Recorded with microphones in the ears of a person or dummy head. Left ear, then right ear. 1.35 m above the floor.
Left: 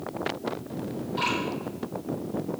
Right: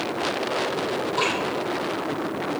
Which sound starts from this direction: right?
Dripping, at 1.2 s.